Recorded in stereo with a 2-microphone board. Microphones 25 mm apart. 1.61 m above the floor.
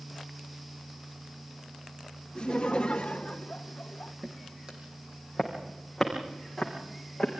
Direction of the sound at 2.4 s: 35° left (ahead or behind).